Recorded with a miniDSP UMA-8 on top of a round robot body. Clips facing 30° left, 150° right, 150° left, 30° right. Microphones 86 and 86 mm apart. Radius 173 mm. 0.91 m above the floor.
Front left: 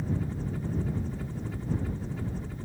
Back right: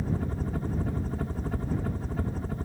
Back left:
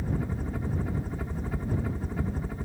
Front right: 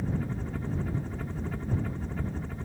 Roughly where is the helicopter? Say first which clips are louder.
Back right 1 dB, back left 1 dB; behind right.